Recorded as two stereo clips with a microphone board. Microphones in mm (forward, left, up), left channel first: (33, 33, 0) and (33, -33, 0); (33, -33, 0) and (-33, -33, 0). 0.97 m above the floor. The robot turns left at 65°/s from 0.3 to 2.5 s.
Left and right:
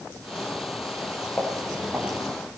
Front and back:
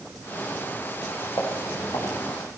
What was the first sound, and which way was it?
Footsteps, 30° left.